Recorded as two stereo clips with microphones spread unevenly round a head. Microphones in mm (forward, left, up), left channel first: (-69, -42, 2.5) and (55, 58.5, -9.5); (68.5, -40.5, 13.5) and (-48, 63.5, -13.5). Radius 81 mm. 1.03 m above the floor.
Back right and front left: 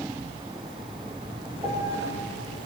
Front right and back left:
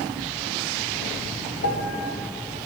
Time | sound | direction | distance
1.6 | a piano | 30° right | 1.5 m